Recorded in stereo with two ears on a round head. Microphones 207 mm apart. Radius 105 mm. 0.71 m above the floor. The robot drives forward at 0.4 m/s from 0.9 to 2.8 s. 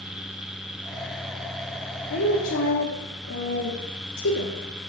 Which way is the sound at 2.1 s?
50° left (ahead or behind).